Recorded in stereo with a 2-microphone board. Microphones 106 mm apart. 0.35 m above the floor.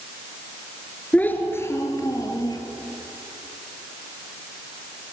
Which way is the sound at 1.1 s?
15° left (ahead or behind).